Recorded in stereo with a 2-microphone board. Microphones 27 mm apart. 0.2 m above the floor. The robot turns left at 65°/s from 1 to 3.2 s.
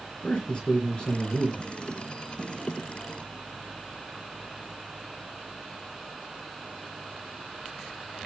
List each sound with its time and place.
0.2 s a man speaking: 45° left, 3.5 m; by 1.6 s 10° left, 3.5 m